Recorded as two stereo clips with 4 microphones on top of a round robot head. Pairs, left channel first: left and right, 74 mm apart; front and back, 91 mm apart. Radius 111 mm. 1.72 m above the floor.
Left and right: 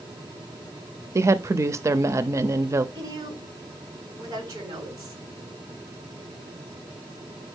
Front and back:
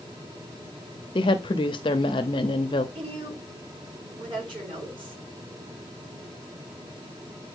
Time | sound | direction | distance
1.1 | a woman speaking | 40° right | 0.6 m
3.0 | a woman speaking | 140° right | 7.5 m